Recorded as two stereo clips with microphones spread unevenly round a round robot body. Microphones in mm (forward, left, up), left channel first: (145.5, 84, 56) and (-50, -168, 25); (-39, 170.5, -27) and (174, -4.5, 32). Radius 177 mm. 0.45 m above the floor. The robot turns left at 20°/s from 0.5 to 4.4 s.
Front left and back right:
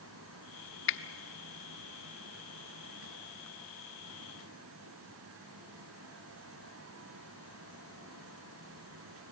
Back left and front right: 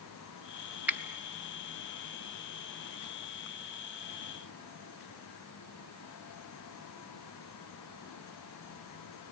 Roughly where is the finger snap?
Ahead left.